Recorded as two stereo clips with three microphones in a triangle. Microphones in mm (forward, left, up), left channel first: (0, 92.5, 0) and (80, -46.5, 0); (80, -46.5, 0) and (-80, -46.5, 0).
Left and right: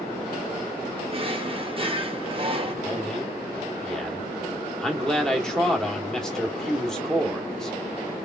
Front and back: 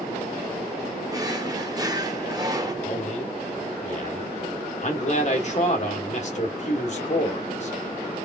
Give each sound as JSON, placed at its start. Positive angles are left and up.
{"t": 1.1, "sound": "a drawer", "azimuth_deg": -110, "distance_m": 0.8}
{"t": 2.8, "sound": "a man speaking", "azimuth_deg": 35, "distance_m": 1.3}